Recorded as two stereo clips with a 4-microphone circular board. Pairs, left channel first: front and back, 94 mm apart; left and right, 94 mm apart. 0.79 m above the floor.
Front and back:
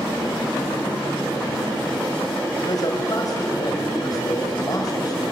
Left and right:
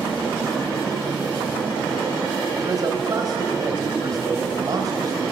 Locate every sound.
2.6 s a man speaking: 45° right, 3.5 m